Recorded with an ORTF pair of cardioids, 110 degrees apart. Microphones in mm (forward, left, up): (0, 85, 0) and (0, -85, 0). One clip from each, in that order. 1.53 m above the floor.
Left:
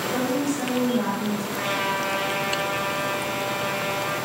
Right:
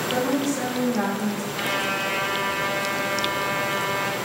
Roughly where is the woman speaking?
Ahead right.